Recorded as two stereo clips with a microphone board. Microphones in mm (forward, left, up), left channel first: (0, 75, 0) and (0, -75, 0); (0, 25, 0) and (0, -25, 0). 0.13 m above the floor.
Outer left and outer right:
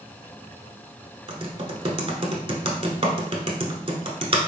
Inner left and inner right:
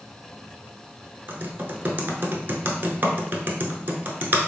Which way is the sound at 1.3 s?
40° right (ahead or behind).